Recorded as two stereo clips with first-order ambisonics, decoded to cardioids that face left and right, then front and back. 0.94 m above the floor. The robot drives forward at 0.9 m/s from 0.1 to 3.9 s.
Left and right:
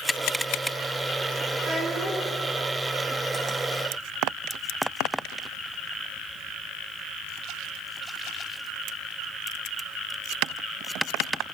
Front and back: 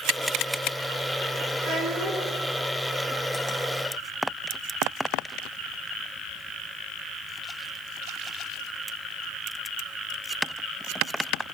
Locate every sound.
1.6 s a child speaking: 155° right, 7 m